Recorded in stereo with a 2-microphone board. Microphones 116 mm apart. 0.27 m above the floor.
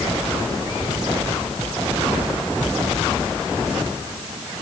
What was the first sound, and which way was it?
Only background noise.